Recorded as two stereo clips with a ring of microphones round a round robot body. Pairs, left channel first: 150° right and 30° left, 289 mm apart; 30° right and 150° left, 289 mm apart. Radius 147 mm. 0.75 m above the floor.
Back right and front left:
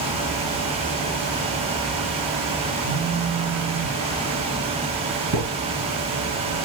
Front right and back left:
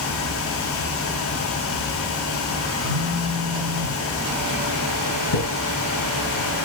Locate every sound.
2.8 s a phone buzzing: straight ahead, 1.2 m
5.3 s a thud: 10° right, 3 m